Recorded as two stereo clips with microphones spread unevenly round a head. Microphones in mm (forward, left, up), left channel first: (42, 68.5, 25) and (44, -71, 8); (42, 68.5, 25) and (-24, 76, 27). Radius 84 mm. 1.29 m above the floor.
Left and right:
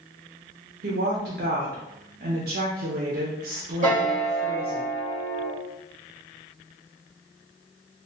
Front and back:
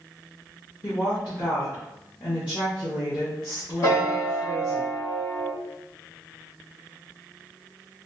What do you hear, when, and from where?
0.8 s a woman speaking: 70° right, 0.7 m
3.8 s a piano: 55° right, 1.9 m